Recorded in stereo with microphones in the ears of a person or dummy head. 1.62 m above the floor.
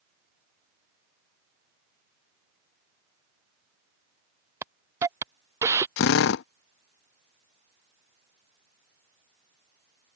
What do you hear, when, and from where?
4.6 s a hiss: 20° right (ahead or behind)
6.0 s a drill: 65° left (ahead or behind)